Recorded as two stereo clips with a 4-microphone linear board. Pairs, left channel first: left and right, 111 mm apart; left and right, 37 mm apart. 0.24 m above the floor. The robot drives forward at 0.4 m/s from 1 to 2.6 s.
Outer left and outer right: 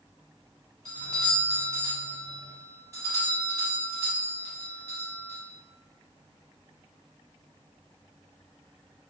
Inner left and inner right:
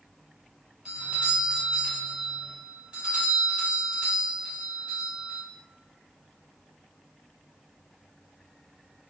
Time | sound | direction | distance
0.8 | a doorbell | 30° right (ahead or behind) | 1.6 m